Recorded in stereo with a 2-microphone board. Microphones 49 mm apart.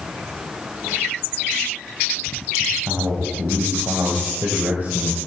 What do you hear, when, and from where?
2.6 s a man speaking: 70° right (ahead or behind), 3.5 m; by 5.2 s 35° right (ahead or behind), 2 m